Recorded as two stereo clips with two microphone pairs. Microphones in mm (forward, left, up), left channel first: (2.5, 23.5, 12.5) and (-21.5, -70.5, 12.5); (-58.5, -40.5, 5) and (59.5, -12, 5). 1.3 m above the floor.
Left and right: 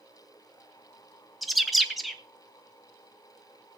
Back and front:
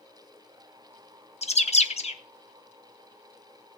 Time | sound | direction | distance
1.4 | a bird | 170° left | 1.1 m